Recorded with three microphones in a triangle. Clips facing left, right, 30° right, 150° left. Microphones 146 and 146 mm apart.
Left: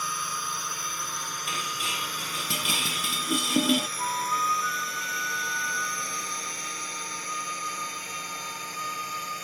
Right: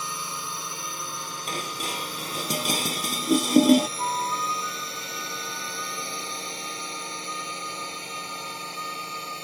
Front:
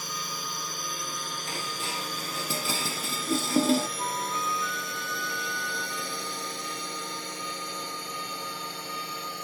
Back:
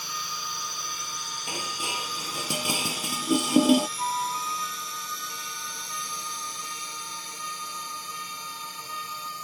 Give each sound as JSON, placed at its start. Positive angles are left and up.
{"t": 0.0, "sound": "a drone", "azimuth_deg": -35}
{"t": 1.5, "sound": "dishes clattering", "azimuth_deg": -135}
{"t": 4.0, "sound": "a flute", "azimuth_deg": -150}